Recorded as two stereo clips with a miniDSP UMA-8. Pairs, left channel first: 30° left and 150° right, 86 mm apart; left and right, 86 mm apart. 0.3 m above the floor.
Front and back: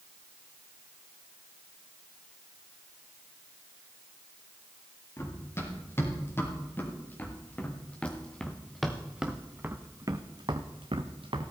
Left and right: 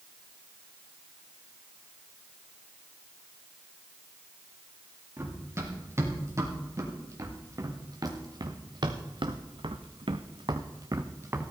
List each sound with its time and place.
5.2 s running footsteps: 30° right, 4.5 m; by 11.5 s 150° right, 1.7 m